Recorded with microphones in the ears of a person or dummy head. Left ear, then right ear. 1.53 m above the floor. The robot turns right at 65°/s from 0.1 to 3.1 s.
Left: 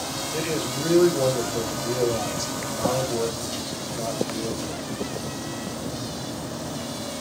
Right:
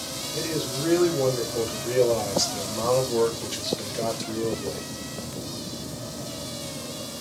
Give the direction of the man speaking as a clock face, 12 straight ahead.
8 o'clock.